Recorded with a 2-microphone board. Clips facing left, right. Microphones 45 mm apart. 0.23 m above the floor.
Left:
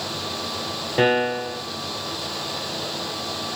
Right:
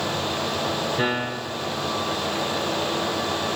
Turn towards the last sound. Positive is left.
turn(degrees=45)  # may be behind; listen again after turning